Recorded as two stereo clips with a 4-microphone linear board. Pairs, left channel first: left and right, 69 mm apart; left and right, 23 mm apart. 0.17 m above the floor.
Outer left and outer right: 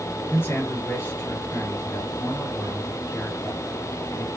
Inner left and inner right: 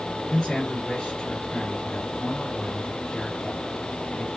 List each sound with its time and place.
0.3 s a man speaking: 35° left (ahead or behind), 3.5 m